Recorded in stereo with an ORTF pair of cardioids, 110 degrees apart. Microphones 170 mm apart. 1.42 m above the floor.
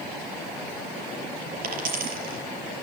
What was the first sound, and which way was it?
A dropped coin, 55° right.